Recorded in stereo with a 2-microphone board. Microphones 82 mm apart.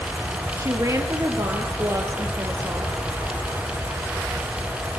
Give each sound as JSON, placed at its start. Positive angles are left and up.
{"t": 0.6, "sound": "a woman speaking", "side_deg": -40, "distance_m": 2.5}